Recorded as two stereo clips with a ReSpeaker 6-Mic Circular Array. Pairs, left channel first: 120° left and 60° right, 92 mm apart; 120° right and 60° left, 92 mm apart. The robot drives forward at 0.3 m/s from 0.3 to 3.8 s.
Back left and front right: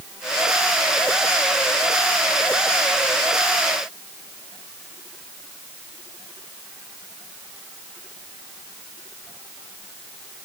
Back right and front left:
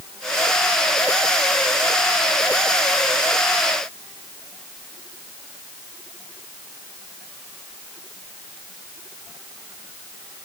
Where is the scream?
No scream in this recording.